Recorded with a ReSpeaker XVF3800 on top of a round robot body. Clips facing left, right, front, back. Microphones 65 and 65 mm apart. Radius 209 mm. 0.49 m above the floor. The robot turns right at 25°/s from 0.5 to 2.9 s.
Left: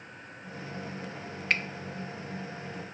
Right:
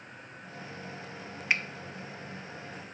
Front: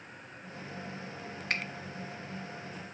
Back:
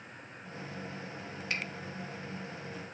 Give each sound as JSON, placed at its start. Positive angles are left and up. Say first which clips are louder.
{"t": 1.5, "sound": "a finger snap", "louder": "even, front 3 dB", "azimuth_deg": -10, "distance_m": 0.6}